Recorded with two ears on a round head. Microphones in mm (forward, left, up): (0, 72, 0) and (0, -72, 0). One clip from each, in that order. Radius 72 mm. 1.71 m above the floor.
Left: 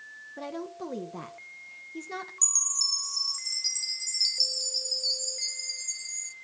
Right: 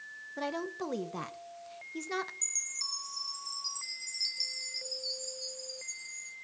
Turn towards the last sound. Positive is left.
turn(degrees=30)  # may be behind; listen again after turning